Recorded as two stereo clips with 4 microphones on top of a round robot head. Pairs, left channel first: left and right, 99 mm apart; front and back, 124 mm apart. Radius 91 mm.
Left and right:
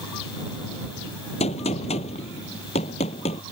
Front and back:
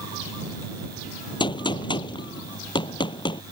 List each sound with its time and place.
1.4 s a gunshot: 50° left